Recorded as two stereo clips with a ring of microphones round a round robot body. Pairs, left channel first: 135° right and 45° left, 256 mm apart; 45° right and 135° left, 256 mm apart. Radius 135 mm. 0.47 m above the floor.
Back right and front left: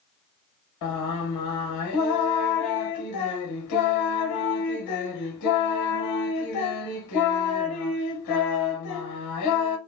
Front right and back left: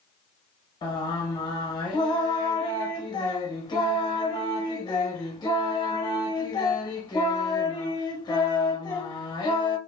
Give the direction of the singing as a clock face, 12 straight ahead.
4 o'clock.